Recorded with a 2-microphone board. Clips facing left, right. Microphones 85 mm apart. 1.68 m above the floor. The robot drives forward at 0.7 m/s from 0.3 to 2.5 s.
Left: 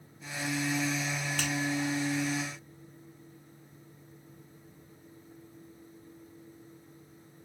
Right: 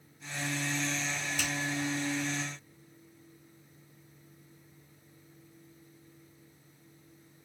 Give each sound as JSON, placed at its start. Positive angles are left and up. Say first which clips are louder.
{"t": 1.4, "sound": "a finger snap", "louder": "left 2 dB", "side_deg": 55, "distance_m": 3.5}